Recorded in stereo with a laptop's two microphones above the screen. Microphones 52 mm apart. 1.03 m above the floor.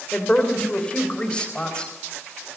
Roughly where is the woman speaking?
Left.